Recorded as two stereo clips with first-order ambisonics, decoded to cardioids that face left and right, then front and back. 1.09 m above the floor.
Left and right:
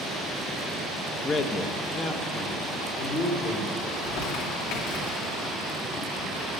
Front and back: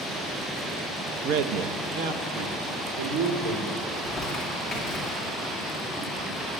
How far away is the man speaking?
About 0.6 m.